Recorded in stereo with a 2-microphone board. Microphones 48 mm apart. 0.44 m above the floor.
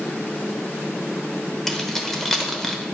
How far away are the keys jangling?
About 1.0 m.